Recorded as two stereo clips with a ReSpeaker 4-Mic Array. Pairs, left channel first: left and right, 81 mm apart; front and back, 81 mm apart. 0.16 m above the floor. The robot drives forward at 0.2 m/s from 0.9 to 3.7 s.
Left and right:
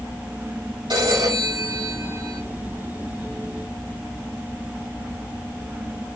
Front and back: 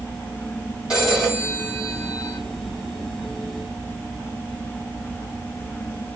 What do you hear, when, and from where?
0.9 s a phone ringing: 100° right, 5 m; by 2.4 s 105° right, 5 m